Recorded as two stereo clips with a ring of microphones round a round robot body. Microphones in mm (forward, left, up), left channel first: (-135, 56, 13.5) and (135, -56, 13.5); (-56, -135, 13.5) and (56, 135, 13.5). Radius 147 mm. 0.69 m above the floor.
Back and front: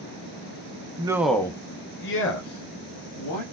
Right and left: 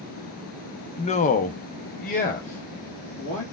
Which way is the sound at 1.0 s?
70° right.